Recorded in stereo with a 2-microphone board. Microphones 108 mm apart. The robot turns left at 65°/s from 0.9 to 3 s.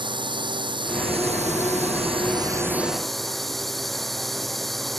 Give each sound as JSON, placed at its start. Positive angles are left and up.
{"t": 0.0, "sound": "a drone", "azimuth_deg": -45}